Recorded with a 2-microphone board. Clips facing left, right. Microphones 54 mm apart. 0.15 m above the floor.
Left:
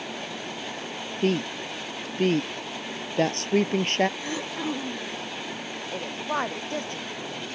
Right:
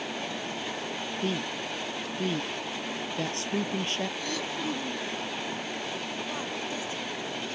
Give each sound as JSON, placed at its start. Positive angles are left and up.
{"t": 1.2, "sound": "a woman speaking", "side_deg": 65}
{"t": 4.2, "sound": "throat clearing", "side_deg": 20}
{"t": 5.9, "sound": "a woman speaking", "side_deg": 65}